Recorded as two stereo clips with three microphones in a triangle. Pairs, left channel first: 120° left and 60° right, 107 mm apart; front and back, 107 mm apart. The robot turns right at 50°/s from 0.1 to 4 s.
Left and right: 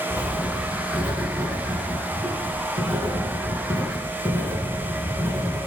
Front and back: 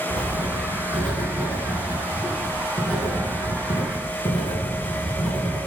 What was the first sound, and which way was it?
Writing, 175° left.